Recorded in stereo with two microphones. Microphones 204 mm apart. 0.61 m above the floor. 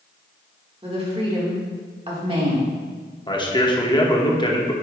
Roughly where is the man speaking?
Left.